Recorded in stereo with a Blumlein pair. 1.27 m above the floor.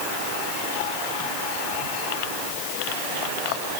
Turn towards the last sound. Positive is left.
No sound to turn to.